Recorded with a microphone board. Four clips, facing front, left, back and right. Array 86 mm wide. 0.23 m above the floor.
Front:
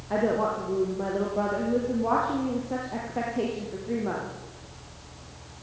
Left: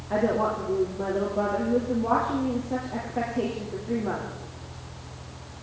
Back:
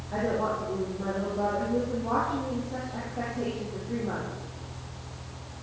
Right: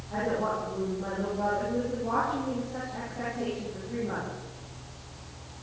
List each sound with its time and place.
0.1 s a woman speaking: 35° left, 6.5 m